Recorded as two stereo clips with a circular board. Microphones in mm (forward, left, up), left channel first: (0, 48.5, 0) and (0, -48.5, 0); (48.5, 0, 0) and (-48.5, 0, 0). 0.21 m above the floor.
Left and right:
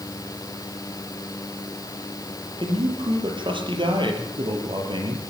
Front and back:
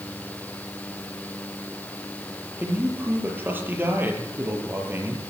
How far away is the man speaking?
About 5.5 m.